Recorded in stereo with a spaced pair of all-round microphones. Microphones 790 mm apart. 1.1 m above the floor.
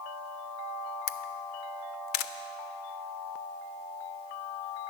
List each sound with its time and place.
1.1 s a camera shutter: 80° left, 0.6 m